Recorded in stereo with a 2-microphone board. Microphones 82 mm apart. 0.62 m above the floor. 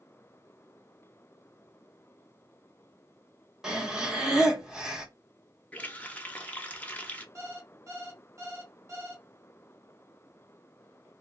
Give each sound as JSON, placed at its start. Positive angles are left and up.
{"t": 3.6, "sound": "breathing", "side_deg": -10, "distance_m": 0.7}
{"t": 5.7, "sound": "a running tap", "side_deg": 15, "distance_m": 0.5}
{"t": 7.3, "sound": "an alarm clock", "side_deg": -35, "distance_m": 0.9}